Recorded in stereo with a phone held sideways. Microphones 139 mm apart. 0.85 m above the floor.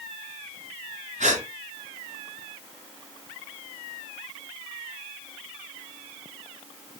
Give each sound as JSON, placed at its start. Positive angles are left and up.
{"t": 1.2, "sound": "a gasp", "side_deg": -65, "distance_m": 4.0}